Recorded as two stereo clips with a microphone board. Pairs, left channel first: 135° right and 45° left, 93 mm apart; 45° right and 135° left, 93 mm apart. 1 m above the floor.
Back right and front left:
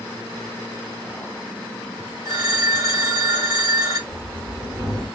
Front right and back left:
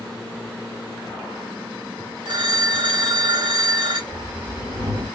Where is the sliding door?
95° left, 1.1 m.